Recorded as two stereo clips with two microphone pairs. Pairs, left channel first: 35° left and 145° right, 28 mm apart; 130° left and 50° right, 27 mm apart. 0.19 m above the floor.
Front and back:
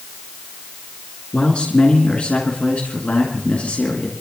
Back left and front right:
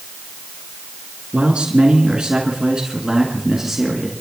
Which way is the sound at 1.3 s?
10° right.